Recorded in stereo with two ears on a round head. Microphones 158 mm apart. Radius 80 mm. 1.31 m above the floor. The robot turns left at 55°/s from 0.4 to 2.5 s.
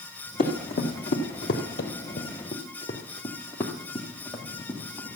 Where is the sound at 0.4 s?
45° left (ahead or behind), 3.5 m; by 1.6 s 50° left (ahead or behind), 2 m.